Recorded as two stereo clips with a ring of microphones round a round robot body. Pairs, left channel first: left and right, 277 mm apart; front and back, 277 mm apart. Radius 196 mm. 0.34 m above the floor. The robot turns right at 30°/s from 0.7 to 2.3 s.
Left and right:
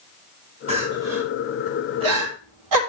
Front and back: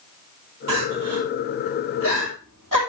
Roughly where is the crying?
Behind.